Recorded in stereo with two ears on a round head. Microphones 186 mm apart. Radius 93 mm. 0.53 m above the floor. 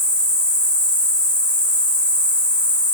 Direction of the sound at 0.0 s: 5° left (ahead or behind).